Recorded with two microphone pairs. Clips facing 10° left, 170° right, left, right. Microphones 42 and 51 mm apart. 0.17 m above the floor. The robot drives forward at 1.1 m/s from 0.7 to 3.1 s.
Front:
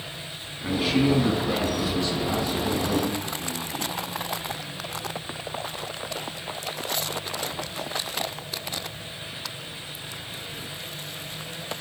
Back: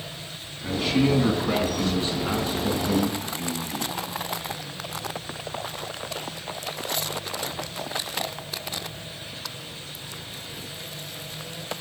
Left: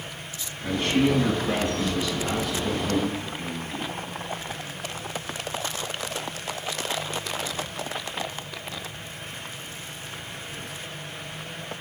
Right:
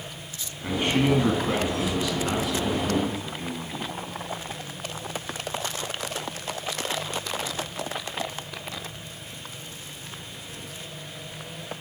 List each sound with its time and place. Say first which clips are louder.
0.6 s a man speaking: even, left 1 dB; 40° right, 1.4 m; by 3.9 s 170° right, 2.5 m